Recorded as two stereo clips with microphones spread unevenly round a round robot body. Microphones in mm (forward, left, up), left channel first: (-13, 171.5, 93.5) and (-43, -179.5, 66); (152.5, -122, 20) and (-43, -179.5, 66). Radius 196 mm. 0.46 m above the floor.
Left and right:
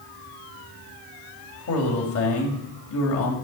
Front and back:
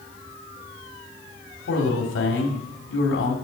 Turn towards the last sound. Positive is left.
turn(degrees=30)